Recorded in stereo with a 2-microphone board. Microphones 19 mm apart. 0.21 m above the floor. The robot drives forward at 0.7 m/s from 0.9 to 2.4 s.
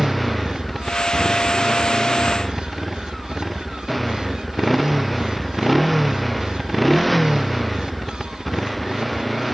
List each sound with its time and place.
0.0 s a motorcycle: 5° left (ahead or behind)